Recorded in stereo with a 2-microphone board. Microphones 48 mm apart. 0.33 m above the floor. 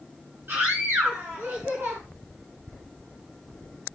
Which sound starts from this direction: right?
A scream, at 0.5 s.